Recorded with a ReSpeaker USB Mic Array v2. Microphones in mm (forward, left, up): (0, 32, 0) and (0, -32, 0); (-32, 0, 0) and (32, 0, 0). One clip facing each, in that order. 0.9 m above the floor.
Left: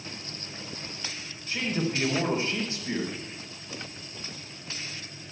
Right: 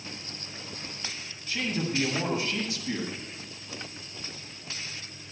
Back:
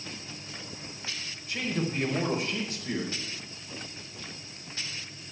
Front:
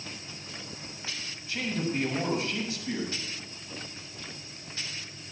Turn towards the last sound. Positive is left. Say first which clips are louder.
# left 1 dB, even
turn(degrees=145)